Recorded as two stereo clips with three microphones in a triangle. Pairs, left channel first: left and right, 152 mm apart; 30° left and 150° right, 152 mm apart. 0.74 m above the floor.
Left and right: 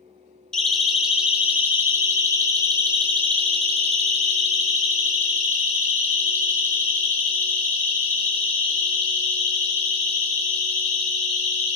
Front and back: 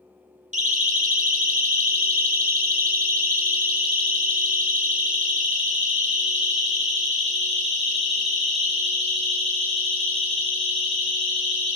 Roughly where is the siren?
Behind.